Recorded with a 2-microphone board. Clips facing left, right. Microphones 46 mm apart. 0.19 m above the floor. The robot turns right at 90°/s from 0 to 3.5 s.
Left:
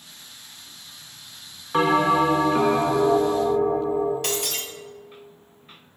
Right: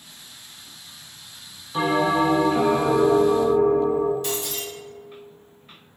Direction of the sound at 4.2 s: 75° left (ahead or behind).